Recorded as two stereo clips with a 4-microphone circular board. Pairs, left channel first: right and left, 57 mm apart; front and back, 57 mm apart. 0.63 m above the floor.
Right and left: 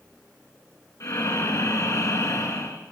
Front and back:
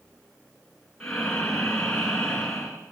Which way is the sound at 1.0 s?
80° right.